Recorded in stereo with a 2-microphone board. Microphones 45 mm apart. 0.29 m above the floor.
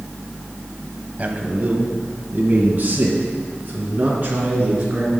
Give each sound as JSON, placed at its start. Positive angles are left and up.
{"t": 1.2, "sound": "a man speaking", "side_deg": -35, "distance_m": 1.3}